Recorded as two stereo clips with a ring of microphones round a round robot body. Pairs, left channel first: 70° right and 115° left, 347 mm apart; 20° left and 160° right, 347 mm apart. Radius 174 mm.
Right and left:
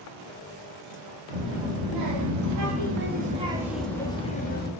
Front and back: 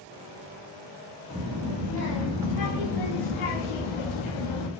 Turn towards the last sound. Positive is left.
turn(degrees=-5)